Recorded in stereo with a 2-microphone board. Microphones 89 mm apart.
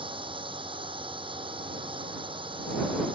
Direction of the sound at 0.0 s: 75° right (ahead or behind).